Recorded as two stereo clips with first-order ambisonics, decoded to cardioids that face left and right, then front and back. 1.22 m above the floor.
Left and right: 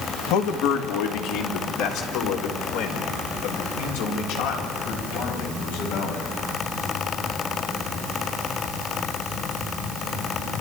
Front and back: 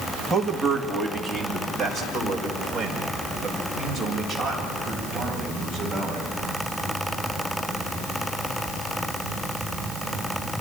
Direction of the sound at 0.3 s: 95° left.